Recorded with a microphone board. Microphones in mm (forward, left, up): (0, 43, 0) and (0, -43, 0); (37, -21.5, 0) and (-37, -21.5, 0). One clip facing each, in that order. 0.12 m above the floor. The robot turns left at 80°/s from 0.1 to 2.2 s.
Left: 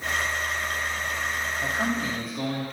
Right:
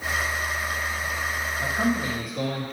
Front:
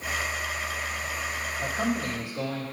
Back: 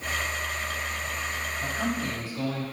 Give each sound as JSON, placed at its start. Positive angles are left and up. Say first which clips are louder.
{"t": 1.6, "sound": "a man speaking", "louder": "right 3 dB, front 2 dB", "azimuth_deg": -30, "distance_m": 3.5}